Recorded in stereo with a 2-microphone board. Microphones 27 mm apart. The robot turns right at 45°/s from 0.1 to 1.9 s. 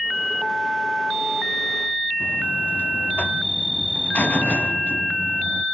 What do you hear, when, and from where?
2.2 s a buzzer: 65° left (ahead or behind), 0.6 m